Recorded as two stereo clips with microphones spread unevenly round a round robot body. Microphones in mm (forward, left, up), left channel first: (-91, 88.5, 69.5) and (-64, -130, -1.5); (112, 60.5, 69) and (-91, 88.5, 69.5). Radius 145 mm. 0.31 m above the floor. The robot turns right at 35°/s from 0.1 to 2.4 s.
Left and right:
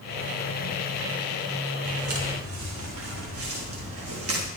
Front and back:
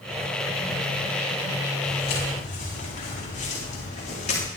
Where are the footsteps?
70° right, 9.5 m; by 4.4 s 60° right, 8 m.